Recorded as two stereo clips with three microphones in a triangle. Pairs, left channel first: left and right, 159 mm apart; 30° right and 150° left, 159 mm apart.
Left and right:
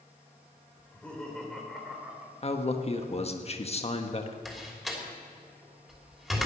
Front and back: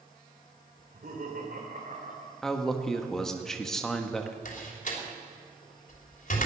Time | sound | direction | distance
0.8 | laughter | 170° left | 3.5 m
2.4 | a man speaking | 55° left | 1.2 m
4.5 | a door slam | straight ahead | 3 m